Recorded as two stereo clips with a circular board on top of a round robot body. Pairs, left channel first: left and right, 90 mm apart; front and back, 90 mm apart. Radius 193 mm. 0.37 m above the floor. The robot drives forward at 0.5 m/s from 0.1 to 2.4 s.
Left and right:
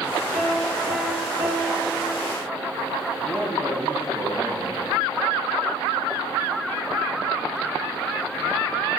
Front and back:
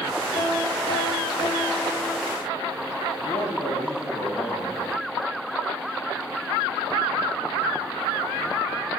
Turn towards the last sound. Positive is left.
turn(degrees=-75)